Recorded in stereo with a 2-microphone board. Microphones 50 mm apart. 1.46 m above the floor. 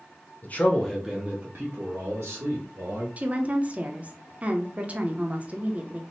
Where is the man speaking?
35° left (ahead or behind), 0.7 m; by 3.1 s 75° right (ahead or behind), 1.7 m.